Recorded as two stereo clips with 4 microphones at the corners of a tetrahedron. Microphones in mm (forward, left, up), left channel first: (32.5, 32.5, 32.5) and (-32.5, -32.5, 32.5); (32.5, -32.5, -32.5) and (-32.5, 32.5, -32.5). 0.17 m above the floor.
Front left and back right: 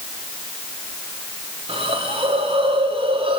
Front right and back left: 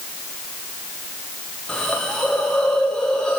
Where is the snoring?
No snoring in this recording.